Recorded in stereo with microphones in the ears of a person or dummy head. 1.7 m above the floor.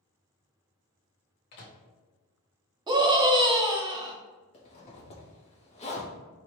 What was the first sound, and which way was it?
A microwave, 55° left (ahead or behind).